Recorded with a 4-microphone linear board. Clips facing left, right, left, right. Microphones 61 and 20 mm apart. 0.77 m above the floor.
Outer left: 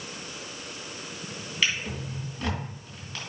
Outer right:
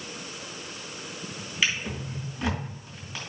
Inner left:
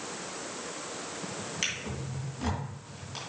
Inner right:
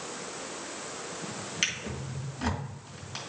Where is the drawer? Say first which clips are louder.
Outer right 1 dB, inner right 3 dB; 15° right (ahead or behind), 2.5 m.